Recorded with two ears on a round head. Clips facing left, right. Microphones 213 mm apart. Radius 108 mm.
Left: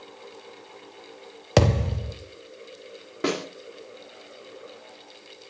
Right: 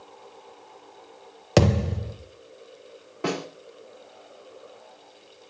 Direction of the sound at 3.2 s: 25° left (ahead or behind).